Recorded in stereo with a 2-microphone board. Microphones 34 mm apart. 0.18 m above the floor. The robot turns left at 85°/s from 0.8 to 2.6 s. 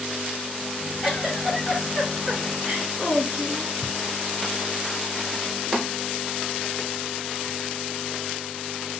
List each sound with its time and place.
1.0 s a giggle: 5° right, 2 m; by 3.7 s 140° right, 2 m